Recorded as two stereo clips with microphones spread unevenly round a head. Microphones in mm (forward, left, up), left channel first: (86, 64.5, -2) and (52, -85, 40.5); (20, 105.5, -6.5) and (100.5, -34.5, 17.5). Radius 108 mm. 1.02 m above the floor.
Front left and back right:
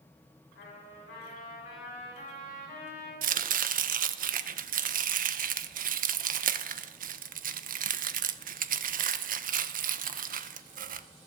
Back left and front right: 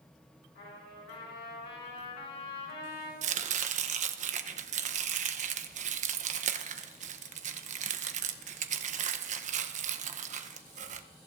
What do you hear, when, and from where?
0.6 s a trumpet: 120° left, 6 m
3.2 s chopping: 90° right, 0.6 m